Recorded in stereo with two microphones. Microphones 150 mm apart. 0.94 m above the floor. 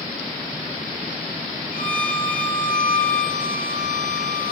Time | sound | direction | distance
1.7 | a violin | 65° left (ahead or behind) | 1.0 m